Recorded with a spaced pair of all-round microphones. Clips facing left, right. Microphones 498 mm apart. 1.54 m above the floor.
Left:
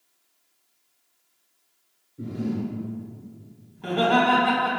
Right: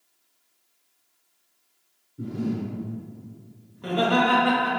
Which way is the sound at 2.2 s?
15° right (ahead or behind).